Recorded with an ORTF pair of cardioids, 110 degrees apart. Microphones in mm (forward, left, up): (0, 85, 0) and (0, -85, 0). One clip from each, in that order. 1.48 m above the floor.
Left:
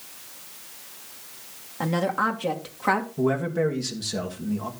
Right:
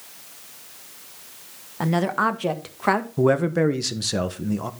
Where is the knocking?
I don't hear knocking.